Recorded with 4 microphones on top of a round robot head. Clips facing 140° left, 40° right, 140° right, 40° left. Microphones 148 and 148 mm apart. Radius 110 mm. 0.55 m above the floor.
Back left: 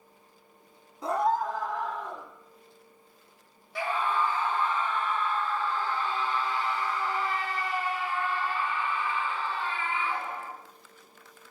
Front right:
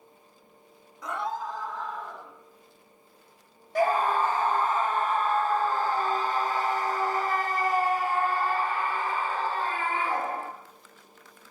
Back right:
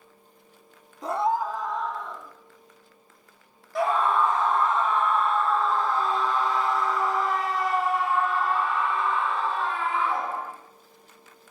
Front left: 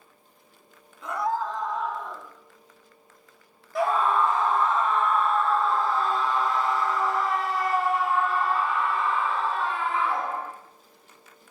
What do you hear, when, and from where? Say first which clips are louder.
1.0 s a scream: back left 6 dB, back right 3 dB; 170° right, 1.0 m; by 2.3 s 115° left, 2 m
3.8 s a scream: front right 5 dB, even; 50° right, 0.8 m